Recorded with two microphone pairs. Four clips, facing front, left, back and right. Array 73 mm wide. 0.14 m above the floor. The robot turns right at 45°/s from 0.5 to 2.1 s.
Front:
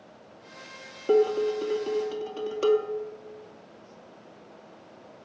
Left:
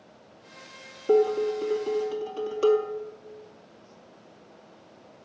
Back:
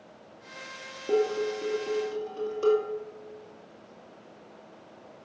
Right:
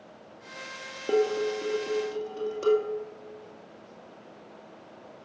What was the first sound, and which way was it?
Dishes clattering, 50° right.